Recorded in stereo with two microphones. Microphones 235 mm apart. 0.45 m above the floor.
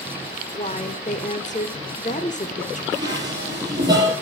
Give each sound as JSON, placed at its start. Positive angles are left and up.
{"t": 0.5, "sound": "a woman speaking", "side_deg": 35, "distance_m": 0.9}
{"t": 2.9, "sound": "dishes clattering", "side_deg": -15, "distance_m": 6.5}